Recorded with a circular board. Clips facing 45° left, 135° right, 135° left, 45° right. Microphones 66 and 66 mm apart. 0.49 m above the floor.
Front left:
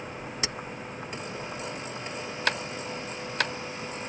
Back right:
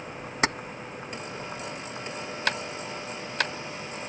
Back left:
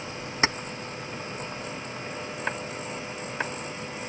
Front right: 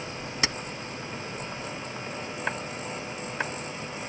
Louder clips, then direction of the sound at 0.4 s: Back right 11 dB, back left 5 dB; 170° right.